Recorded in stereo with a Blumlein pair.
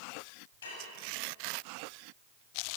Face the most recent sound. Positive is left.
turn(degrees=60)